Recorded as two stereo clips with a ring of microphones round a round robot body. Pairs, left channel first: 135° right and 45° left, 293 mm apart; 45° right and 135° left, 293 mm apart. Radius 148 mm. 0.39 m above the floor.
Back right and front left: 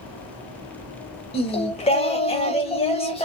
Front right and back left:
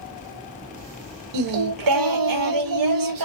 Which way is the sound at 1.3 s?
155° left.